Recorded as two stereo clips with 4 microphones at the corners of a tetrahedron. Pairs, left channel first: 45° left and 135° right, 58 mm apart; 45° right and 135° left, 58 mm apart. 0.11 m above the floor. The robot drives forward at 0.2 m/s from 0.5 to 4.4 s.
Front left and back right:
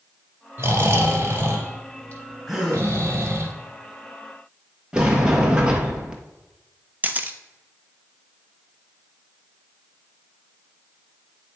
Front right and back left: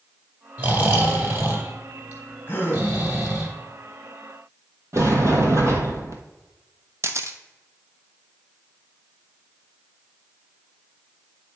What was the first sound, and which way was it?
Snoring, straight behind.